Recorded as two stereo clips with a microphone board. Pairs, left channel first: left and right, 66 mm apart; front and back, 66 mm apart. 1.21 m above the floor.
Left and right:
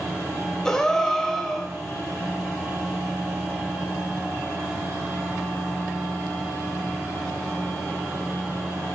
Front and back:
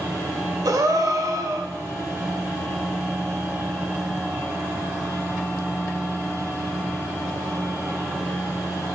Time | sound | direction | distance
0.7 | a gasp | 165° left | 2 m